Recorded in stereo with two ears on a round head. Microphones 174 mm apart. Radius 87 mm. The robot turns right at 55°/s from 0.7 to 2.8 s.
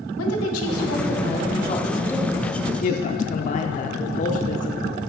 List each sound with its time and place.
0.2 s a woman speaking: 90° left, 1.0 m; by 2.5 s 175° right, 1.0 m
2.8 s a woman speaking: 40° left (ahead or behind), 0.5 m